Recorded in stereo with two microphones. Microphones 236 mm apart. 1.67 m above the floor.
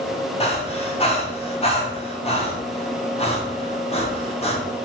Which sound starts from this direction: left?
Breathing, at 0.4 s.